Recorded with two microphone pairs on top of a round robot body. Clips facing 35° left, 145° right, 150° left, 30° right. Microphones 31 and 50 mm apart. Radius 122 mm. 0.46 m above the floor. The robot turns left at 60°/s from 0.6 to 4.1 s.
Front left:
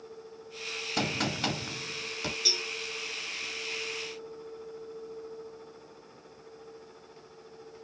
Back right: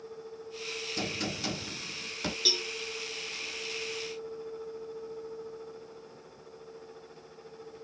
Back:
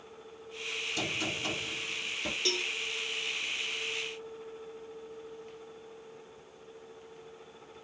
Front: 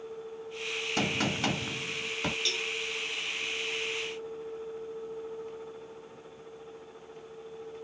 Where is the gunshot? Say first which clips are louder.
Front left 6 dB, front 6 dB; 15° left, 0.7 m; by 2.4 s 70° right, 0.7 m.